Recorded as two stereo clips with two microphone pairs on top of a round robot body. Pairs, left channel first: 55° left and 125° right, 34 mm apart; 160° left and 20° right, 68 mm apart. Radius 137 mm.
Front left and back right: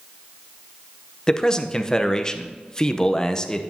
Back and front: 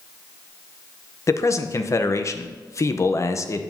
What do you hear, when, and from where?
1.3 s a man speaking: 120° left, 0.7 m